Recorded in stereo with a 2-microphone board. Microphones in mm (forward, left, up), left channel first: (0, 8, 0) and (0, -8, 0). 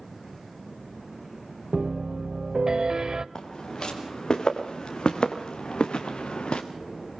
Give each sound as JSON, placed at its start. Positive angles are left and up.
{"t": 1.7, "sound": "a piano", "side_deg": -40, "distance_m": 0.8}
{"t": 3.4, "sound": "footsteps", "side_deg": 50, "distance_m": 5.0}